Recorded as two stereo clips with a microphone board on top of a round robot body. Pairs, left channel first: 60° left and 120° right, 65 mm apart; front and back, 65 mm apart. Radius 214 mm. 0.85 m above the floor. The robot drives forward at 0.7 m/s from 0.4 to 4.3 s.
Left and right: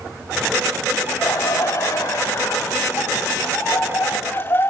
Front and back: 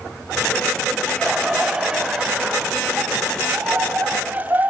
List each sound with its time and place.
1.1 s laughter: 90° left, 5.5 m; by 4.7 s 115° left, 6 m